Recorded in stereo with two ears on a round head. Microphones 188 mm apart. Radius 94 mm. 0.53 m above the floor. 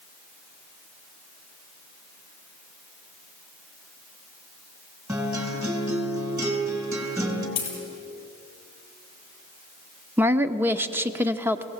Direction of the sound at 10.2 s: 10° right (ahead or behind).